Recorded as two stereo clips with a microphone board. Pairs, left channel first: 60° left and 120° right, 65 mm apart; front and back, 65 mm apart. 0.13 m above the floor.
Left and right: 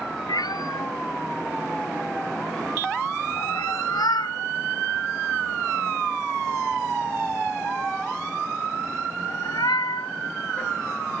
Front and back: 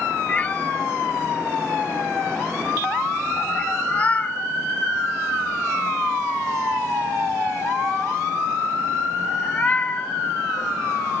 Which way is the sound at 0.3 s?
70° left.